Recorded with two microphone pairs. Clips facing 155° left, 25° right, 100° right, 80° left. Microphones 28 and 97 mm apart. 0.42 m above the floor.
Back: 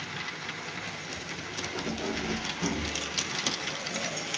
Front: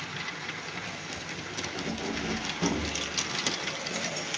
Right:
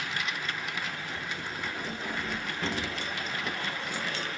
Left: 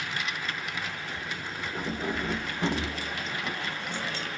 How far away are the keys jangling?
About 0.6 m.